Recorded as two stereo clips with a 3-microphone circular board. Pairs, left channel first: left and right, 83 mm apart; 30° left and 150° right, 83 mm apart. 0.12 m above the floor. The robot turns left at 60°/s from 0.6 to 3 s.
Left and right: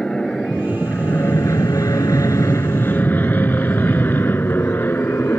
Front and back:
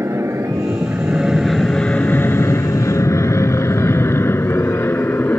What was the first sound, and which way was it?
An aircraft, 170° left.